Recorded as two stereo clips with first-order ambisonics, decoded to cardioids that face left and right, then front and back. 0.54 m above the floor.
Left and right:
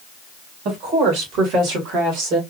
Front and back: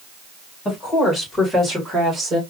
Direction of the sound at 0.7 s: 65° right.